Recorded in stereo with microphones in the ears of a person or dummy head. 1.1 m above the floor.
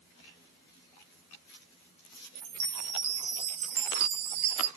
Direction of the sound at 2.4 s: 80° right.